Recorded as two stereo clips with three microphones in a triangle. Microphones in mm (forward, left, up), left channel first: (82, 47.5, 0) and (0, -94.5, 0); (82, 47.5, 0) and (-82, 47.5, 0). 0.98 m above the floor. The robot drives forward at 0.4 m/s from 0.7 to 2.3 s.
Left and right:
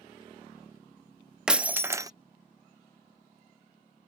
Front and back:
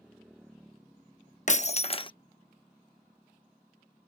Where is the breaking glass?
35° right; by 2.1 s 55° right.